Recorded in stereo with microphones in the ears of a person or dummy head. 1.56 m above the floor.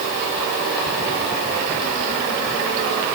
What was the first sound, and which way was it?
Only background noise.